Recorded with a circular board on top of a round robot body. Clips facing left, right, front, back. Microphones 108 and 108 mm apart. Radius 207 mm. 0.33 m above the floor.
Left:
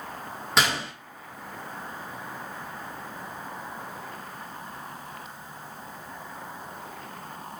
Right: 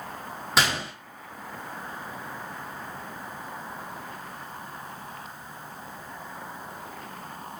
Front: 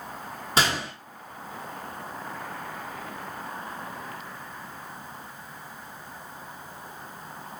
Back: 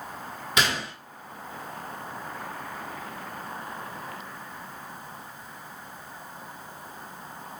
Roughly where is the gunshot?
Ahead.